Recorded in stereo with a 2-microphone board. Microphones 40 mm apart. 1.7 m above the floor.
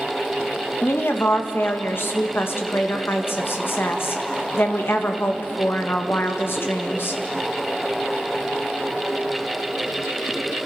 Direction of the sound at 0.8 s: 65° left (ahead or behind).